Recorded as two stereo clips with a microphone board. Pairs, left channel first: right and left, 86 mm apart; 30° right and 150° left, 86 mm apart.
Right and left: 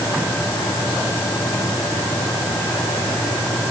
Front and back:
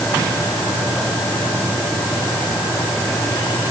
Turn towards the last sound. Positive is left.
No sound to turn to.